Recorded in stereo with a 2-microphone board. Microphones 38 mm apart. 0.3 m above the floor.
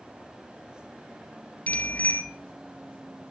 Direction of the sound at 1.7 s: 40° left (ahead or behind).